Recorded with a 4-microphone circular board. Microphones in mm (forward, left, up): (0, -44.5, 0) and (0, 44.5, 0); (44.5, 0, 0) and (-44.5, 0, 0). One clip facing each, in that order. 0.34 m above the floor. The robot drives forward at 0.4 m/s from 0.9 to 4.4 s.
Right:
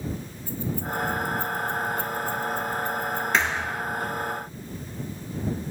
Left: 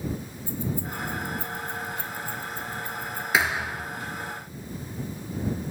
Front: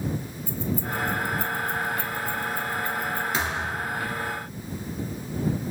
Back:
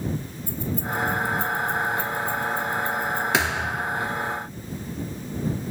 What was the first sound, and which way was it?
Keys jangling, 160° left.